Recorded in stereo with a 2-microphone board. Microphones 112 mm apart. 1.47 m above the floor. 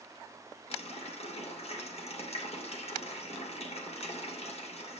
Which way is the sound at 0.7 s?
65° left (ahead or behind).